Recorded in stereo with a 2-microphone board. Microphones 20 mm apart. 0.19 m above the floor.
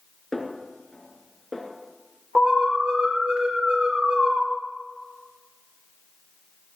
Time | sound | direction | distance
0.3 | a snare drum | 15° left (ahead or behind) | 3 m
2.4 | an alarm | 70° right (ahead or behind) | 3.5 m